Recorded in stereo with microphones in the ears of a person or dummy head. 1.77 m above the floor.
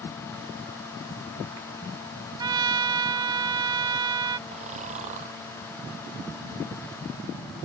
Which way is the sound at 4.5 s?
35° right (ahead or behind).